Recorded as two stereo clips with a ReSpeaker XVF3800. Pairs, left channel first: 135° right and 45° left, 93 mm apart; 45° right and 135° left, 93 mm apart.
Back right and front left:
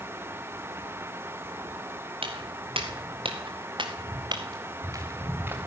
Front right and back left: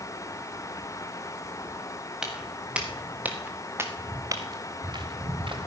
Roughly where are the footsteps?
Ahead left.